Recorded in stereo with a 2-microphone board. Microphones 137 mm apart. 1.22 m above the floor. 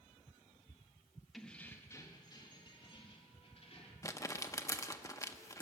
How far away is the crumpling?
About 0.6 m.